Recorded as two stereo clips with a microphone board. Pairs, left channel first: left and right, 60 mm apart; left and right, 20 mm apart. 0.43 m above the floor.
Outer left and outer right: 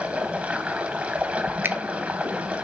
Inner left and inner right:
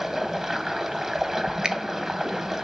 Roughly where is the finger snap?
Right.